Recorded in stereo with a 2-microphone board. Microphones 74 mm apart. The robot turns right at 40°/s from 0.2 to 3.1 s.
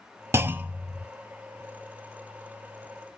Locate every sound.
0.3 s a clunk: 35° right (ahead or behind), 0.5 m; by 1.1 s 10° right (ahead or behind), 0.5 m